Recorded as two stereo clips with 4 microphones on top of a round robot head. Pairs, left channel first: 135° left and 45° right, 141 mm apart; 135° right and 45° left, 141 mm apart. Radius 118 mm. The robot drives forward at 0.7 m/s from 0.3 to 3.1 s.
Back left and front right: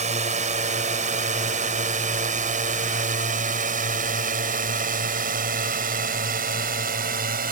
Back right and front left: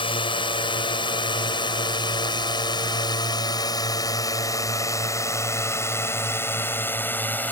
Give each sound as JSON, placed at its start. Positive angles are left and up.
{"t": 0.0, "sound": "a drone", "azimuth_deg": -80}